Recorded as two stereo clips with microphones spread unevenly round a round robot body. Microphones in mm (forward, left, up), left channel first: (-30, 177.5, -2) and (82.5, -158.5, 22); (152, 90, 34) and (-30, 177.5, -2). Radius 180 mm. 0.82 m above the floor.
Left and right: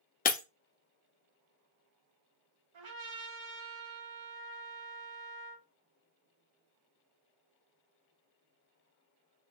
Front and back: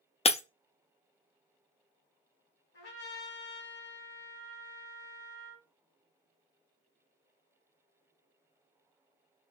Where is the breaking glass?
40° left, 0.6 m.